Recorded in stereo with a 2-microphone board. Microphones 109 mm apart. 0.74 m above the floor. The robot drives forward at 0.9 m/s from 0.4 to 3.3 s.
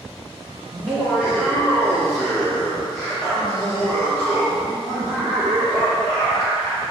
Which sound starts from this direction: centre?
Laughter, at 0.7 s.